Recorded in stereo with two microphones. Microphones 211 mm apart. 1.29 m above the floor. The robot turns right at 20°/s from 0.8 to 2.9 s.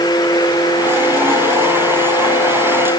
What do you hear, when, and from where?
Only background noise.